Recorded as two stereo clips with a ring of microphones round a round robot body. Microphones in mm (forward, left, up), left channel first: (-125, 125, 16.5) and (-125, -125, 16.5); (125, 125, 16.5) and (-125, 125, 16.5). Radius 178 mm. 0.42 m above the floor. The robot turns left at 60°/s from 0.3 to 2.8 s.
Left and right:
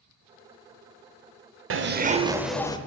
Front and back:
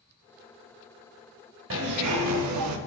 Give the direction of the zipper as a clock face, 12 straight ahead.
4 o'clock.